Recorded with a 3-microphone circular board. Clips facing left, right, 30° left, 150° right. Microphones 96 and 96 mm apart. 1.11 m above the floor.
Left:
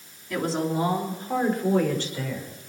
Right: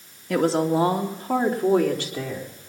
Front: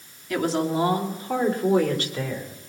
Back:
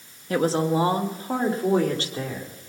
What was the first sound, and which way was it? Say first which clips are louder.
A woman speaking: right 6 dB, back 2 dB; 95° right.